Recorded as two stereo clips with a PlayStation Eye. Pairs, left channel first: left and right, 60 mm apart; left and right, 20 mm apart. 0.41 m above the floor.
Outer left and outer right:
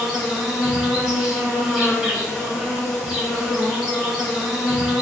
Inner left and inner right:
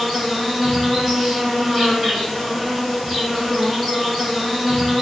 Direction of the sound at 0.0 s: 5° right (ahead or behind).